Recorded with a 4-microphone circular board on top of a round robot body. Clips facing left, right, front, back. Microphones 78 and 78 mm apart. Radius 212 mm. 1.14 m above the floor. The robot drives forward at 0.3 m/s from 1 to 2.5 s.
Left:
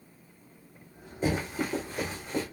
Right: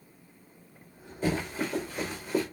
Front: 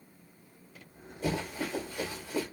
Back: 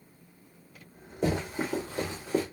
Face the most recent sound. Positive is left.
turn(degrees=-175)